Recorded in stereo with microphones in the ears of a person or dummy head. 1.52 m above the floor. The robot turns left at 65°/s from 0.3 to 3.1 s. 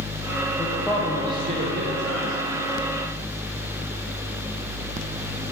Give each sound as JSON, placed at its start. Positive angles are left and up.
{"t": 0.6, "sound": "a man speaking", "azimuth_deg": 25, "distance_m": 1.0}